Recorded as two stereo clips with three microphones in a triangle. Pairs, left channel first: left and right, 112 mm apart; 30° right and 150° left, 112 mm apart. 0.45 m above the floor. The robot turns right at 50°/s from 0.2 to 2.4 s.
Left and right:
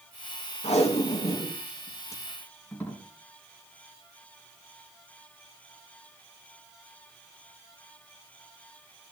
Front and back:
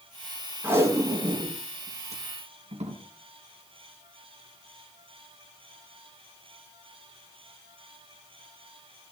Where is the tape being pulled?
80° left, 4.5 m; by 3.0 s 170° left, 4.5 m.